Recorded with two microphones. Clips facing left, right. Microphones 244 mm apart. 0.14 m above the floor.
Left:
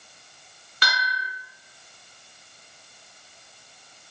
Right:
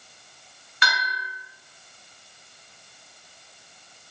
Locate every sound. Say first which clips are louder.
0.8 s a bell: even; 40° left (ahead or behind), 1.2 m